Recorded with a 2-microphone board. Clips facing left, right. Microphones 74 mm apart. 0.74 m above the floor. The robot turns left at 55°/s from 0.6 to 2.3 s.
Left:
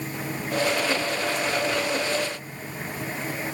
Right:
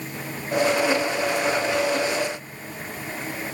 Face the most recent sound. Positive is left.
No sound to turn to.